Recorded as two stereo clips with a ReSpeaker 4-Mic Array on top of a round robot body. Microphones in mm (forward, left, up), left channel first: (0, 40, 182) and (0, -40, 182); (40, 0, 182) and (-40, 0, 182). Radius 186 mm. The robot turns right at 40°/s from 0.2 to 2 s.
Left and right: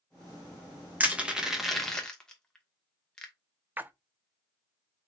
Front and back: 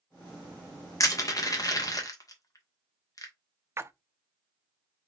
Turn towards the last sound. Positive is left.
turn(degrees=-145)